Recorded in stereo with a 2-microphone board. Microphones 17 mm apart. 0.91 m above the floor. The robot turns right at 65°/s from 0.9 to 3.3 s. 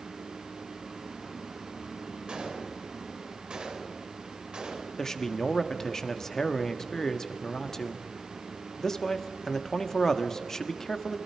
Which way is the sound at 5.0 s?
25° left (ahead or behind).